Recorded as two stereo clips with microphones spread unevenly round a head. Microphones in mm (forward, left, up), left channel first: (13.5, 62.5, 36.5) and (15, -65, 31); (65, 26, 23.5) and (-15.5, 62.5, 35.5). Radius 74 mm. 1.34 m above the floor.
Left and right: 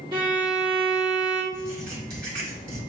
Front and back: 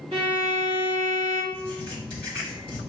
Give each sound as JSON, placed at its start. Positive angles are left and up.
{"t": 0.1, "sound": "a violin", "azimuth_deg": -145, "distance_m": 1.7}
{"t": 1.5, "sound": "writing", "azimuth_deg": -75, "distance_m": 1.9}